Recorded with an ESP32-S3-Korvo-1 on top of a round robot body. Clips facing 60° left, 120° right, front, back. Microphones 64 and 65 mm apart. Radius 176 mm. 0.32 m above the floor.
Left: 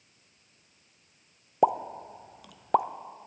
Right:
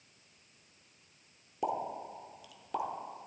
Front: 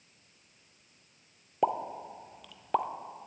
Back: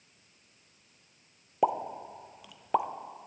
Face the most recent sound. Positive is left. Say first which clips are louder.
# left 10 dB, back 1 dB
turn(degrees=100)